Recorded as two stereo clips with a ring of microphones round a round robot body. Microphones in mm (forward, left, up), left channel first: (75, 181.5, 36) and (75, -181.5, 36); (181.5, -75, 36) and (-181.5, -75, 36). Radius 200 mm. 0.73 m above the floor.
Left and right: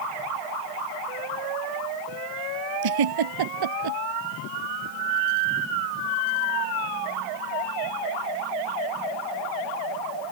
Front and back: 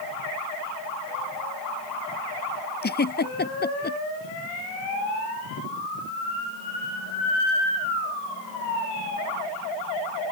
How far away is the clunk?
I don't hear a clunk.